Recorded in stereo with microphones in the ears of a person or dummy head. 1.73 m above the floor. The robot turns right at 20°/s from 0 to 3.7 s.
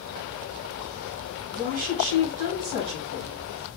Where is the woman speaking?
45° right, 1.6 m; by 3.4 s 10° right, 1.6 m.